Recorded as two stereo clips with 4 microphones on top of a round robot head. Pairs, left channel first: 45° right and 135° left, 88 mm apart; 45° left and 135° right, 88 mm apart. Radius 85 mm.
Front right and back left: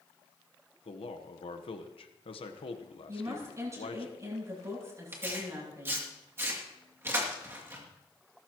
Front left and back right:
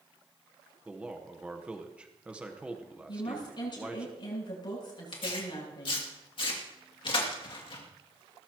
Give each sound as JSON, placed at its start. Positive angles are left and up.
{"t": 0.8, "sound": "a man speaking", "azimuth_deg": -60, "distance_m": 1.1}
{"t": 3.1, "sound": "a woman speaking", "azimuth_deg": 80, "distance_m": 8.0}
{"t": 5.1, "sound": "tearing paper", "azimuth_deg": 70, "distance_m": 2.5}